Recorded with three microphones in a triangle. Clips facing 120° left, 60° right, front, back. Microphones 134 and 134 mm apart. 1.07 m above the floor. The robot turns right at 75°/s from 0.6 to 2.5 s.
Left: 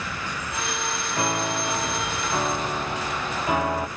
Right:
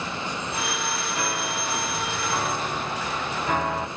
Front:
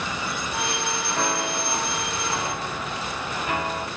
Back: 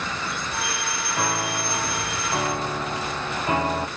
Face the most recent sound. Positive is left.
turn(degrees=-165)